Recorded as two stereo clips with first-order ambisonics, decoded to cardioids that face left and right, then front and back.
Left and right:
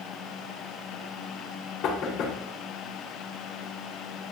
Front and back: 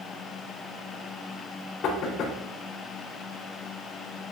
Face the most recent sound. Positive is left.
turn(degrees=45)